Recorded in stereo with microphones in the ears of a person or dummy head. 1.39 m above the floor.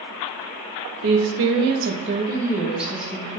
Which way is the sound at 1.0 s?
60° right (ahead or behind).